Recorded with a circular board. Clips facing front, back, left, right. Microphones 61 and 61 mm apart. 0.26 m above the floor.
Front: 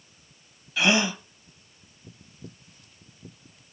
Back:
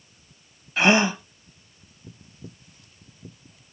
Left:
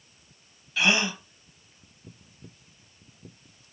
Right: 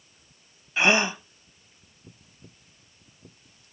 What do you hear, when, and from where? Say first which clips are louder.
0.8 s a gasp: back 4 dB, right 3 dB; 145° right, 0.5 m